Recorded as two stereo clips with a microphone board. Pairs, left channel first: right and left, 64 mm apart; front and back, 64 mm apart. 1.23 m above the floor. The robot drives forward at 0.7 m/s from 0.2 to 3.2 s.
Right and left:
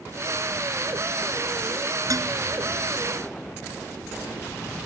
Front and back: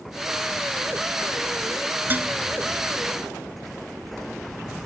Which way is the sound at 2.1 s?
120° left.